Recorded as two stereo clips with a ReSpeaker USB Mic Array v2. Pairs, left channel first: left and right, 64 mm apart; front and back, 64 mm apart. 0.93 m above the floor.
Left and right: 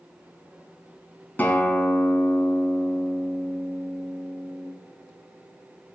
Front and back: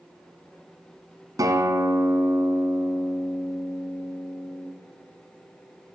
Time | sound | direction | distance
1.4 | a guitar | 155° left | 2.0 m